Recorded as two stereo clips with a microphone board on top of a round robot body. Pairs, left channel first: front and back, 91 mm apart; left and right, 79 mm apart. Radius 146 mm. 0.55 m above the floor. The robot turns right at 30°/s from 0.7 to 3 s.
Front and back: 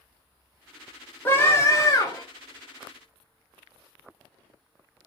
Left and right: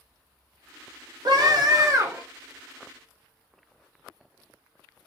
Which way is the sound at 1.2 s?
70° right.